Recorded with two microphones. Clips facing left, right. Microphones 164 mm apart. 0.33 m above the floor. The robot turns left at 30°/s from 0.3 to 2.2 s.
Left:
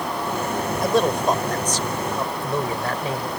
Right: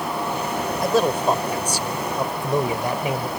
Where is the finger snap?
I don't hear a finger snap.